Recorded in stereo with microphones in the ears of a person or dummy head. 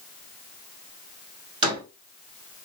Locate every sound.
1.6 s a door slam: 30° right (ahead or behind), 3 m